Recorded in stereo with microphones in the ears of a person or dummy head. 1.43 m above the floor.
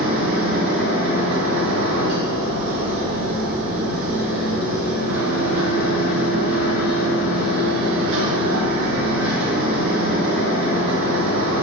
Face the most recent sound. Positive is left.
turn(degrees=-50)  # may be behind; listen again after turning